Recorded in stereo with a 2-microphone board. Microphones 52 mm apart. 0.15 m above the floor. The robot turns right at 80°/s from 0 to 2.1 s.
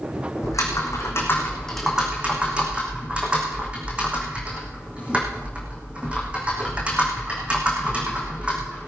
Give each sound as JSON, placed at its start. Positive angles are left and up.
{"t": 0.4, "sound": "typing on a keyboard", "azimuth_deg": 70, "distance_m": 4.0}